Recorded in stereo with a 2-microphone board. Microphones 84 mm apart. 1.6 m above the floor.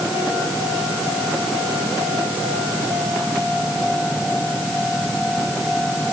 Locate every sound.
Only background noise.